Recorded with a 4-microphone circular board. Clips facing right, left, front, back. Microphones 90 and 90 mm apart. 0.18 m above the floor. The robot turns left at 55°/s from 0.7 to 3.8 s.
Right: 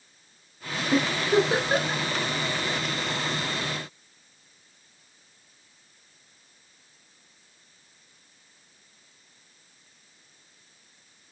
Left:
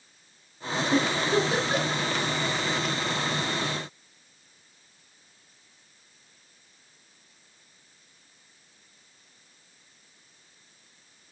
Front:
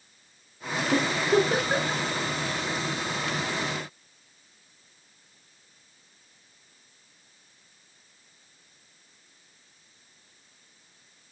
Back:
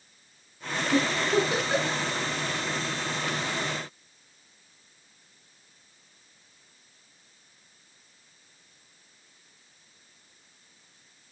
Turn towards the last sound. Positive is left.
turn(degrees=-165)